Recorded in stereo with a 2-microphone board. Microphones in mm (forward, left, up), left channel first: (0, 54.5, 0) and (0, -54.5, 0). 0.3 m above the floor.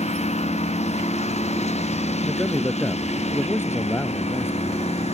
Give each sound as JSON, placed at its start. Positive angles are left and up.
{"t": 0.0, "sound": "a lawn mower", "side_deg": 85}
{"t": 2.2, "sound": "a man speaking", "side_deg": 20}